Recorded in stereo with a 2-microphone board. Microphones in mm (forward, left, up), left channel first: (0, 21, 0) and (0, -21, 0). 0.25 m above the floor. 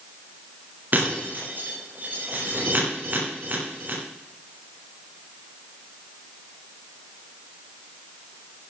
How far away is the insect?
I don't hear an insect.